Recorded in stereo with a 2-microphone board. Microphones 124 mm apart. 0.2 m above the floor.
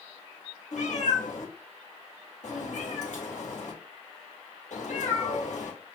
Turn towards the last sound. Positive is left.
turn(degrees=75)  # may be behind; listen again after turning